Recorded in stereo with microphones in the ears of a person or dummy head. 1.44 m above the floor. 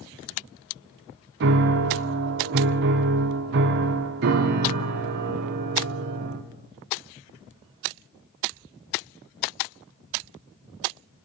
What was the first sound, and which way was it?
A piano, 55° right (ahead or behind).